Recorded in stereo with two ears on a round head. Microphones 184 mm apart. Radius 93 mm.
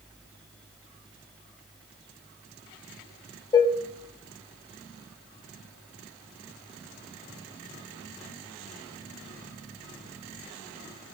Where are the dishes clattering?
20° left (ahead or behind), 2 m.